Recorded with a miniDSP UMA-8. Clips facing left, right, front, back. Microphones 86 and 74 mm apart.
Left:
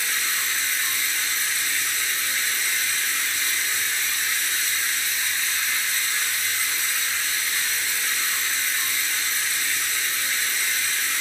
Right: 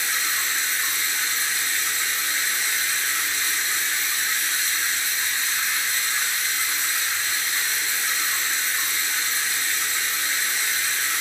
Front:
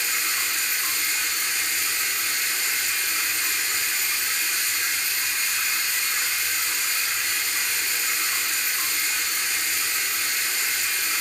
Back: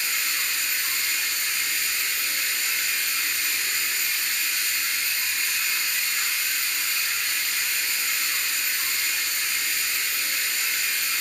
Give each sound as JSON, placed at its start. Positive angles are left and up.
{"t": 0.0, "sound": "running water", "azimuth_deg": -25, "distance_m": 3.0}